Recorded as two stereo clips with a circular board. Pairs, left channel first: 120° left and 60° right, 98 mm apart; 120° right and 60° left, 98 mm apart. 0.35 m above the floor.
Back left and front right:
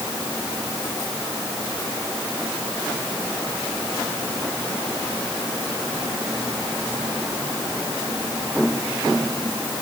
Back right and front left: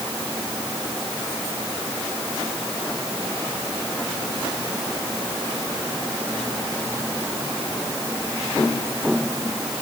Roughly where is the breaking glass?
No breaking glass in this recording.